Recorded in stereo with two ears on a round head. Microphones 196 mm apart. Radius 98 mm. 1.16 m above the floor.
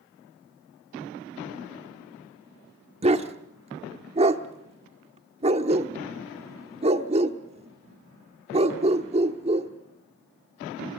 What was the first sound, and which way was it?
A dog barking, 30° right (ahead or behind).